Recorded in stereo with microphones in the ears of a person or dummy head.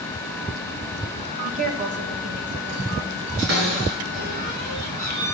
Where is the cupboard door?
75° right (ahead or behind), 7 m.